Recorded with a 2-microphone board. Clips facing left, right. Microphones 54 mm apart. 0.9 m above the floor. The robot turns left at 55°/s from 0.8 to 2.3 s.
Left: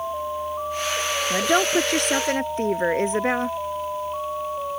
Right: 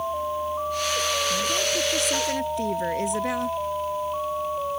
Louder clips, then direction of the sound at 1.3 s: Left 5 dB; 95° left.